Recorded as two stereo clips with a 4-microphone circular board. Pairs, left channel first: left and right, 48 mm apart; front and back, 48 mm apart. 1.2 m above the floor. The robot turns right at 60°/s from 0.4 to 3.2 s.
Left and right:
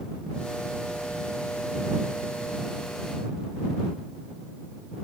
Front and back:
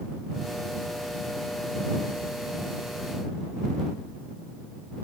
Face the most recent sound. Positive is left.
No sound to turn to.